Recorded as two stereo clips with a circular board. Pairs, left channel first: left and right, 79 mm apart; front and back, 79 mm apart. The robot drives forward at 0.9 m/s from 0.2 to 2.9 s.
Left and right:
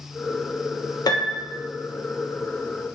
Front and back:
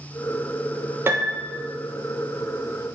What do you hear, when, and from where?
1.1 s a piano: 120° left, 0.8 m; by 1.6 s 145° left, 1.1 m